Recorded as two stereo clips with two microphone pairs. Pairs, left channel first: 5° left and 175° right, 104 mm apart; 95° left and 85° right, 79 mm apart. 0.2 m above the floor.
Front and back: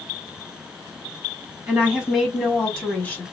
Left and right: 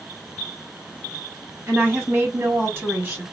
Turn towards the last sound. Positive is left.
turn(degrees=-45)